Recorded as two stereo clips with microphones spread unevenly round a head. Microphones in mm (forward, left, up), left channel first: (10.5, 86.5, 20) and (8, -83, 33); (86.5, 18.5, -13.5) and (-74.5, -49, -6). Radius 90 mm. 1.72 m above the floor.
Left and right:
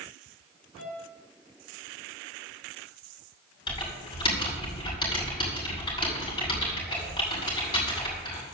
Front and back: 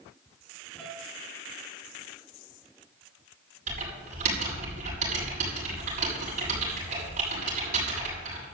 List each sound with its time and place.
0.8 s a piano: 105° left, 5 m
3.7 s typing on a keyboard: 155° left, 7.5 m